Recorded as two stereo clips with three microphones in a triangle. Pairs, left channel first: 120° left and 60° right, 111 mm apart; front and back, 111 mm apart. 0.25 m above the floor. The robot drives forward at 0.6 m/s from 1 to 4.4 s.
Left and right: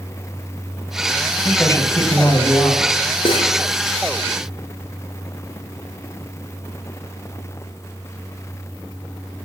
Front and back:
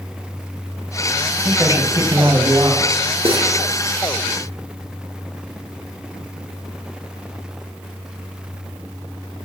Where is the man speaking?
140° left, 1.3 m; by 3.1 s 165° left, 1.9 m.